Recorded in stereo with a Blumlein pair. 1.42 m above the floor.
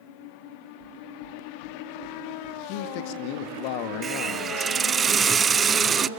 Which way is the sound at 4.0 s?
20° right.